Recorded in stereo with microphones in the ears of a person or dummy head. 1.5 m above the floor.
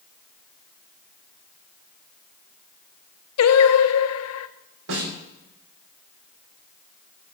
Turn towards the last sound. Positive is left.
turn(degrees=-80)